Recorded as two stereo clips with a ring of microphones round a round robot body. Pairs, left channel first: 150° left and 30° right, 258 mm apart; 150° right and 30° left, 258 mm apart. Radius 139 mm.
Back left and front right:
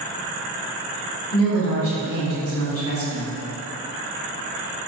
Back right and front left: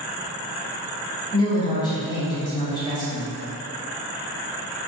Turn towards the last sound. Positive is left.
turn(degrees=140)